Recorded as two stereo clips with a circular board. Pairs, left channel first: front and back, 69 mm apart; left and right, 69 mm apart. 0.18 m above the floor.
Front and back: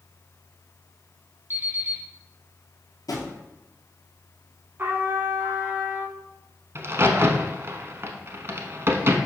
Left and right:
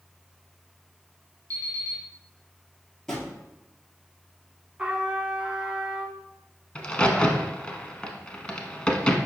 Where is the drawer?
5° left, 1.7 m.